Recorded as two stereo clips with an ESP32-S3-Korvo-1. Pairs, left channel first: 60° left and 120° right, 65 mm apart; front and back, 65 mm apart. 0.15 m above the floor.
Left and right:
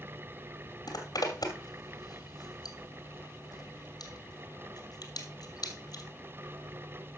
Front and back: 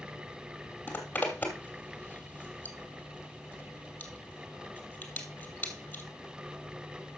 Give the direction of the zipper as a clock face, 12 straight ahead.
10 o'clock.